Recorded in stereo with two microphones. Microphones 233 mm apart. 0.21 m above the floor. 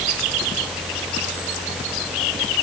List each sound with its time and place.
Only background noise.